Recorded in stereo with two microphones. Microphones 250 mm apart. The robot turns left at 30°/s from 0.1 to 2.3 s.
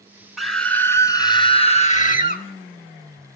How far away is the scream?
About 1.1 m.